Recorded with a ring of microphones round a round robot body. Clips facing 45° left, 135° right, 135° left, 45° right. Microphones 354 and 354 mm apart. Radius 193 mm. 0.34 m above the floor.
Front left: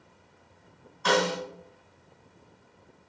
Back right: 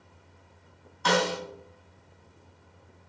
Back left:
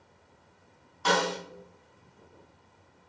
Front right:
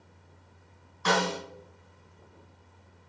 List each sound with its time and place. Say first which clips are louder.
1.1 s a snare drum: front left 1 dB, even; straight behind, 2.0 m